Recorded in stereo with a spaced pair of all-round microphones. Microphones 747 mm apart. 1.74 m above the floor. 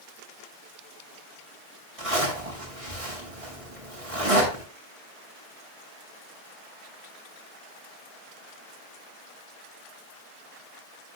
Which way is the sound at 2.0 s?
45° right (ahead or behind).